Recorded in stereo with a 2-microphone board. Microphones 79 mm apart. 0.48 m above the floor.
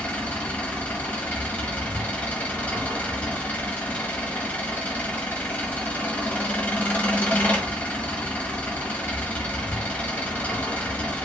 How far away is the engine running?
About 1.1 m.